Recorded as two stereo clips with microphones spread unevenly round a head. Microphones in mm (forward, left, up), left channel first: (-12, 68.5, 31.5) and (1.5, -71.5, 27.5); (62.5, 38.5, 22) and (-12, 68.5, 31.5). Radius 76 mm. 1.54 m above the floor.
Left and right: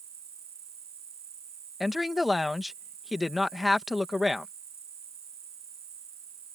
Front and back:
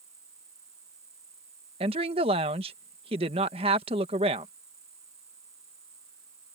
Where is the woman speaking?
175° right.